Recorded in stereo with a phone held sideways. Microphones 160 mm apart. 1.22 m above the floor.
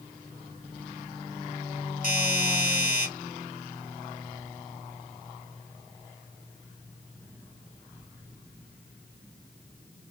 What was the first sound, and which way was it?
A doorbell, 60° right (ahead or behind).